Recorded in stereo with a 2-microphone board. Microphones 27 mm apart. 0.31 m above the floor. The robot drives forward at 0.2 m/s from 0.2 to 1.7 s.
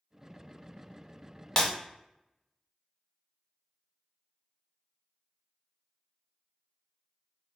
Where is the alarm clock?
No alarm clock in this recording.